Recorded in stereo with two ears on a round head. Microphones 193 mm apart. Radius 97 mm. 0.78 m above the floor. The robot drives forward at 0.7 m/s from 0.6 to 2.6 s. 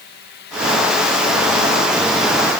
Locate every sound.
Only background noise.